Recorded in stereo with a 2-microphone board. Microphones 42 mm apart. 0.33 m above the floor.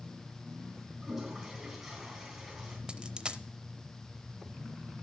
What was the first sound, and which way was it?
A toilet flushing, 10° right (ahead or behind).